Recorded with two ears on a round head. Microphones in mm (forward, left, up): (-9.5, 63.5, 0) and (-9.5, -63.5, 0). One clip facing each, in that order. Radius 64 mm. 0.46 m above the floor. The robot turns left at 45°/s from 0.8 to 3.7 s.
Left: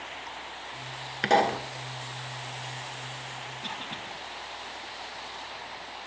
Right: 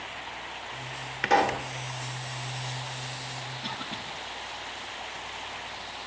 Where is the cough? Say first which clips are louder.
Right 1 dB; 30° left (ahead or behind), 4.5 m; by 4.0 s 25° left (ahead or behind), 4.5 m.